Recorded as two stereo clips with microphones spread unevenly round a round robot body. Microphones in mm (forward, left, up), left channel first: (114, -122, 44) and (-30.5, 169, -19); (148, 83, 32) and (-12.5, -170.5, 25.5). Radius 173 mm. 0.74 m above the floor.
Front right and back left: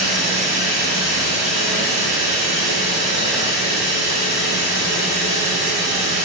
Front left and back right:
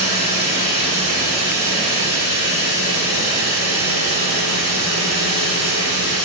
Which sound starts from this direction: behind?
Running water, at 0.0 s.